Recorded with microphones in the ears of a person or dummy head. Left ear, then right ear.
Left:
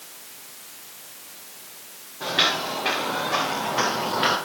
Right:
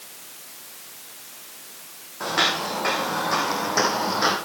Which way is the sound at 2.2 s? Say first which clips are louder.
Even; 60° right (ahead or behind).